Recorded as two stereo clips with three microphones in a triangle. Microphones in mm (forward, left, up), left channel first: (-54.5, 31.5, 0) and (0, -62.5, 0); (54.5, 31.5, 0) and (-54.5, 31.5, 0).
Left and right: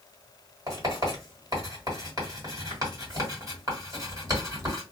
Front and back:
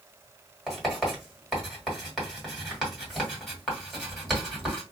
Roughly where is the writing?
Right.